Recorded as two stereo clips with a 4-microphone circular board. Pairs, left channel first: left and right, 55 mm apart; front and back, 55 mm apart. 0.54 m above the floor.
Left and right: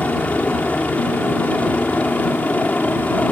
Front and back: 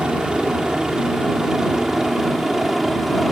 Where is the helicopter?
125° left; by 3.3 s 100° left.